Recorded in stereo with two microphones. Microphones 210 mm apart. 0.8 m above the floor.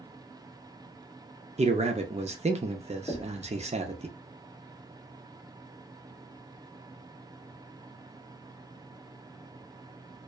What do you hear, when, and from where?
1.6 s a man speaking: 30° right (ahead or behind), 0.5 m
3.1 s knocking: 20° left (ahead or behind), 0.6 m